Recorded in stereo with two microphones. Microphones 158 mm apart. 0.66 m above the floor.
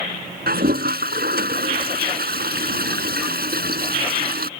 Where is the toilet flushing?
80° right.